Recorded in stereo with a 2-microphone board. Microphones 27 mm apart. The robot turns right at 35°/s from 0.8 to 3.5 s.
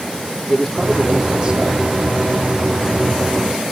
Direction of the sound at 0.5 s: Straight behind.